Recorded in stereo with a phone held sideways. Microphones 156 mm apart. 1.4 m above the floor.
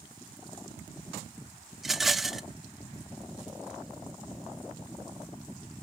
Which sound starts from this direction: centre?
A rattle, at 1.8 s.